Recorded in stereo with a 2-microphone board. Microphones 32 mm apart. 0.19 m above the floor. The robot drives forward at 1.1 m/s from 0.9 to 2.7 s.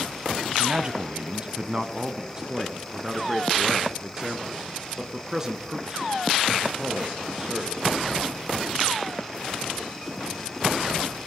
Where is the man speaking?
30° right (ahead or behind), 1.3 m; by 7.8 s 15° right (ahead or behind), 2.5 m.